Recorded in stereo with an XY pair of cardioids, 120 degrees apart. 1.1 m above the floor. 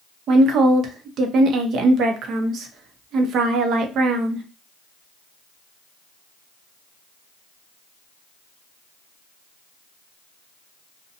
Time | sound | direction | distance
0.3 | a woman speaking | 60° right | 0.7 m